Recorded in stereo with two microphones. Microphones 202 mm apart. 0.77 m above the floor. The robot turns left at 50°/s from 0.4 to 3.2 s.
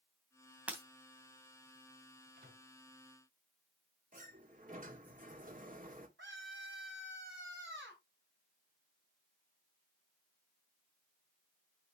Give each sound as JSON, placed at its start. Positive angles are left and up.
{"t": 0.7, "sound": "breaking glass", "side_deg": -5, "distance_m": 2.5}
{"t": 2.4, "sound": "a microwave", "side_deg": -55, "distance_m": 5.5}
{"t": 4.1, "sound": "a sliding door", "side_deg": -40, "distance_m": 1.9}
{"t": 6.2, "sound": "a scream", "side_deg": -70, "distance_m": 4.0}